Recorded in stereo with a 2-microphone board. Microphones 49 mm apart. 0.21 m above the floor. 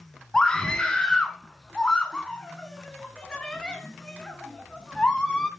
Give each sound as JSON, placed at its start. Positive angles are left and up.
{"t": 0.3, "sound": "a scream", "side_deg": 20, "distance_m": 1.7}